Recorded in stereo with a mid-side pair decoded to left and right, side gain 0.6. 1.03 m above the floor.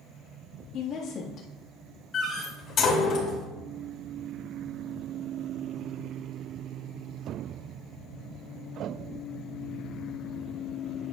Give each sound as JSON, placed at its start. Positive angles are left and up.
{"t": 0.7, "sound": "a woman speaking", "azimuth_deg": 55, "distance_m": 1.8}
{"t": 2.1, "sound": "a door slam", "azimuth_deg": 50, "distance_m": 3.0}